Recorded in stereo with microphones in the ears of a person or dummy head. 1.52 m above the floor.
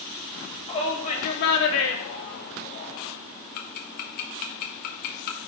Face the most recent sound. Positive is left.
turn(degrees=50)  # may be behind; listen again after turning